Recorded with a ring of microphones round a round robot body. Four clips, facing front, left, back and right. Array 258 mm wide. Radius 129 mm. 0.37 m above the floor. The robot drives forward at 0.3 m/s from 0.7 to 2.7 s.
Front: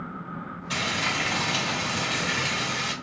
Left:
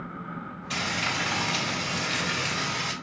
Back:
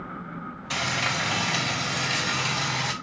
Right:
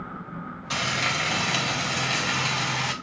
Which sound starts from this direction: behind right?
Frying, at 0.7 s.